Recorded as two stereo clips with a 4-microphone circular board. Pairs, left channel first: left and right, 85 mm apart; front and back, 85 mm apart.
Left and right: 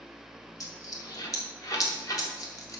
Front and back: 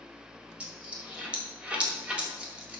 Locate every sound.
0.6 s a dropped coin: 110° left, 1.5 m